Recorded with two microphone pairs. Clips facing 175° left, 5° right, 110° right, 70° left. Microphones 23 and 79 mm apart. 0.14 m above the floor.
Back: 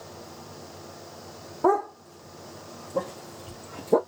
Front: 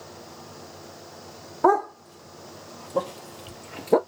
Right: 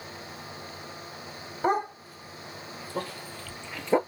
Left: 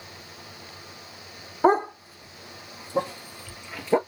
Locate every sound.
1.6 s a dog barking: 10° left, 2.5 m; by 4.0 s 20° right, 0.9 m